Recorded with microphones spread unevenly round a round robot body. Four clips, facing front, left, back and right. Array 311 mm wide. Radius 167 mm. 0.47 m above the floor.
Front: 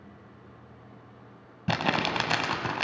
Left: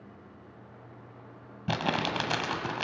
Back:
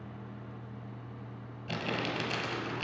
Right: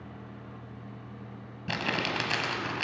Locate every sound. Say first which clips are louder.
1.7 s crumpling: left 2 dB, front 8 dB; 15° left, 1.7 m